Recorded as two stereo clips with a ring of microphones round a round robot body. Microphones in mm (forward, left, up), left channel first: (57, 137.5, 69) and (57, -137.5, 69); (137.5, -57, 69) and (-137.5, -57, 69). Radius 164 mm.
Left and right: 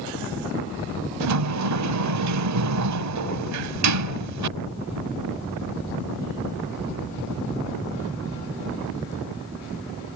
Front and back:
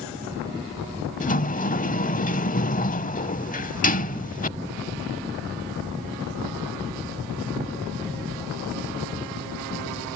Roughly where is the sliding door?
Ahead right.